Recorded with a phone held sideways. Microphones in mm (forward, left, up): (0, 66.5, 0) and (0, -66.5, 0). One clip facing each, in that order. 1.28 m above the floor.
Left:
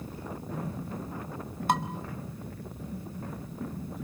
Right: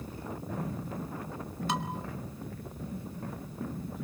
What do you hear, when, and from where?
1.7 s dishes clattering: 55° left (ahead or behind), 1.7 m